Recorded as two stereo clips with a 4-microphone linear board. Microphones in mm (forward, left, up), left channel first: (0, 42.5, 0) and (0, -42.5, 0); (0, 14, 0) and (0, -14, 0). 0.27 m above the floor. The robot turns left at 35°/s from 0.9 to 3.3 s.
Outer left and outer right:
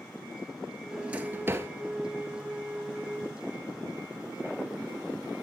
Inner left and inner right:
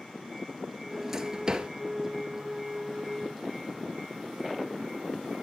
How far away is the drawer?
About 1.0 m.